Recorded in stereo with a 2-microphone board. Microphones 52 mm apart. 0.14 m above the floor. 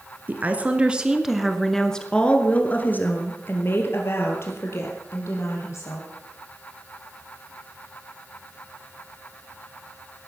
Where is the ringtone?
No ringtone in this recording.